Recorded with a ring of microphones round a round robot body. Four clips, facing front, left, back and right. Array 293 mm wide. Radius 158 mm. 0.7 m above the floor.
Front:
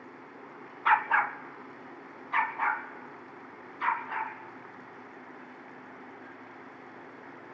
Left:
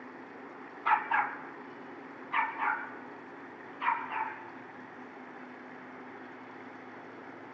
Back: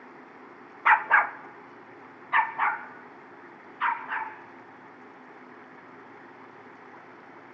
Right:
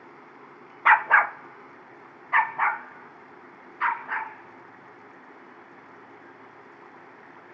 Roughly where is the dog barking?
Right.